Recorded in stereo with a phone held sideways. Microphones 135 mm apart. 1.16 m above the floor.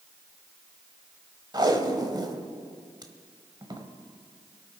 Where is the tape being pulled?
30° right (ahead or behind), 1.2 m.